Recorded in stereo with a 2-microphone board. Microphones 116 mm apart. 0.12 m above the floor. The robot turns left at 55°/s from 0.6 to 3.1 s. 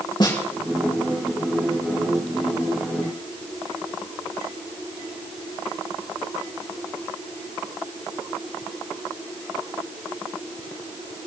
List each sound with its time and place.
0.2 s a snare drum: 40° left (ahead or behind), 4.5 m